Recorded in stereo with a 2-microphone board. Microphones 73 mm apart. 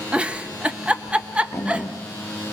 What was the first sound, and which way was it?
A giggle, 15° right (ahead or behind).